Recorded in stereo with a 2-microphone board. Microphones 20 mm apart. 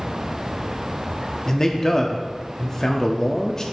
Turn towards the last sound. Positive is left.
turn(degrees=30)  # may be behind; listen again after turning